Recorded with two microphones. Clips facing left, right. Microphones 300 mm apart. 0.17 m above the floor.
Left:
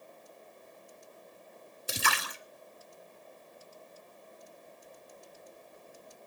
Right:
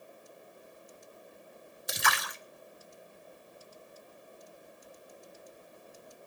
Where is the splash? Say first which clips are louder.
Even; 35° left (ahead or behind), 1.7 m.